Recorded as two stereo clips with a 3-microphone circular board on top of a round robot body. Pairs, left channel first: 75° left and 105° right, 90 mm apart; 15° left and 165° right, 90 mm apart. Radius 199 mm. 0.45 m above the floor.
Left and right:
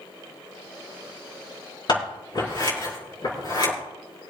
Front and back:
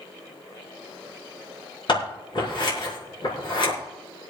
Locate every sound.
1.9 s scissors: 40° left, 5.5 m